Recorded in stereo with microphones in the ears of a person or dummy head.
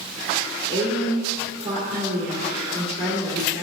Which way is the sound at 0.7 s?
35° right (ahead or behind).